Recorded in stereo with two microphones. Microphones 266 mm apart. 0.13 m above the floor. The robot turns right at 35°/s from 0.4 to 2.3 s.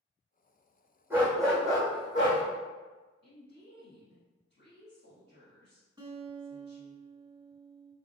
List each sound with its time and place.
1.1 s a dog barking: 10° right, 1.9 m; by 2.4 s 35° left, 1.9 m
3.2 s a woman speaking: 45° left (ahead or behind), 1.9 m
6.0 s a guitar: 15° right (ahead or behind), 0.8 m